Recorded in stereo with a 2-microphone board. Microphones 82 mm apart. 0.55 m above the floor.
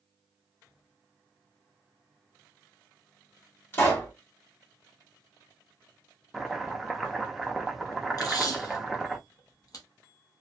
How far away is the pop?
About 1.5 m.